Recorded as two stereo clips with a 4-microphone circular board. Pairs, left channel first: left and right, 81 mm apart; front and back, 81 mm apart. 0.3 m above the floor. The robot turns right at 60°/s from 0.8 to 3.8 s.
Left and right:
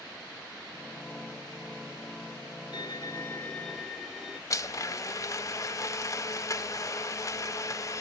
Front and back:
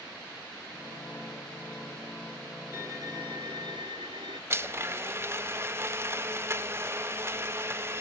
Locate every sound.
2.7 s a violin: 115° left, 1.6 m; by 4.4 s straight behind, 1.6 m
4.5 s a blender: 125° left, 0.6 m